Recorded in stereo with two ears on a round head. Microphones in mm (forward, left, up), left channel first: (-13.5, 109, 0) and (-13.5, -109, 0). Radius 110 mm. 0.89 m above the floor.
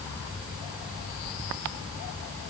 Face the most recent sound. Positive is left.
No sound to turn to.